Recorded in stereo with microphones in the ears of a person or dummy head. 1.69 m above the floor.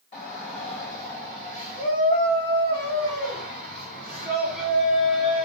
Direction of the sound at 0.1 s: 35° left (ahead or behind).